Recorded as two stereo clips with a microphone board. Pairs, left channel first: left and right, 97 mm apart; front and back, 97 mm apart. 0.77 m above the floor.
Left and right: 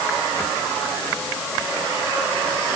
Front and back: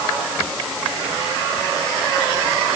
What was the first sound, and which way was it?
Only background noise.